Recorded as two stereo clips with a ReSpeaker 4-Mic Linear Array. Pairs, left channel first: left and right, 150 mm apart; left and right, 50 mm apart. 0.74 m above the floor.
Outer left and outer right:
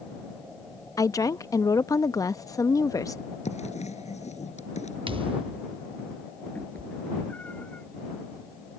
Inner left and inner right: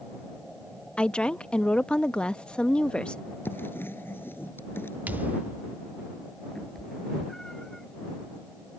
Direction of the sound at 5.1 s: 35° right (ahead or behind).